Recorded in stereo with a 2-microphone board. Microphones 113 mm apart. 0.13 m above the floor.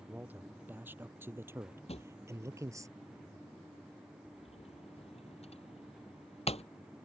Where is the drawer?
70° left (ahead or behind).